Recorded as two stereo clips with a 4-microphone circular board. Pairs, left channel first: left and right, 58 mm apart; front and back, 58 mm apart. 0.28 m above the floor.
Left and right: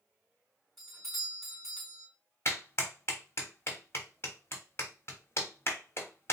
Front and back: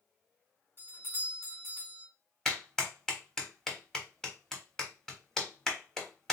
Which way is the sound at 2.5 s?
75° left.